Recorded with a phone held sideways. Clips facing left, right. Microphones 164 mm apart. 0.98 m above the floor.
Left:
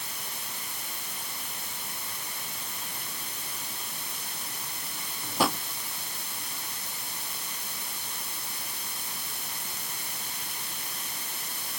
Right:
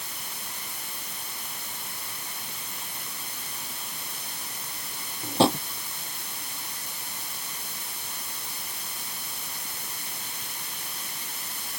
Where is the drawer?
25° right (ahead or behind).